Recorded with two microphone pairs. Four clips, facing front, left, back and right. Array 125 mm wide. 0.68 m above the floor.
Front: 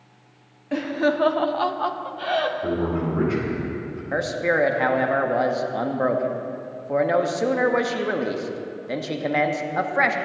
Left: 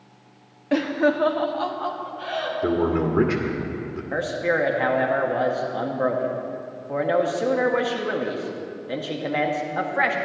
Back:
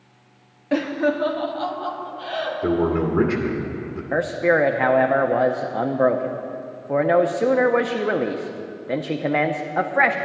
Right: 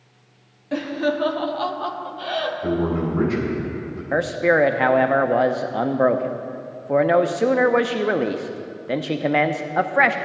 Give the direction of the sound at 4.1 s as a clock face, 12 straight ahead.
4 o'clock.